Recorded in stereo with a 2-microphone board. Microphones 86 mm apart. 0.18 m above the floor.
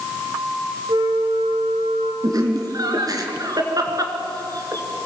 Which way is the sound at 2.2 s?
45° right (ahead or behind).